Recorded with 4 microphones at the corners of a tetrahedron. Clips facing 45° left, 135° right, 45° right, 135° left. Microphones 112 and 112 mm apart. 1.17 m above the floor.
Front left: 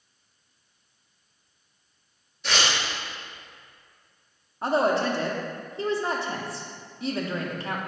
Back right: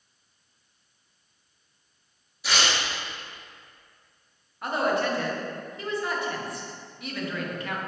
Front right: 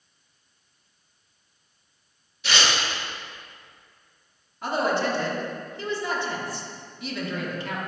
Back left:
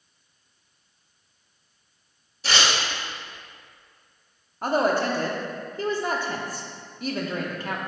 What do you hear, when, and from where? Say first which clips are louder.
2.4 s tearing paper: even, back left 1 dB; 145° left, 0.8 m
4.6 s a woman speaking: front left 3 dB, back left 2 dB; 100° left, 0.5 m